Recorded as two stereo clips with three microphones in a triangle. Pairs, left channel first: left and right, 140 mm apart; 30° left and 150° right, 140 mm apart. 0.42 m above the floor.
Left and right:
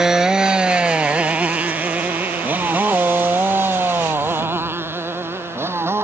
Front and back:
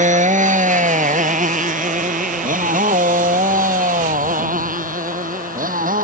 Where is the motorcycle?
175° right; by 6.0 s 165° right.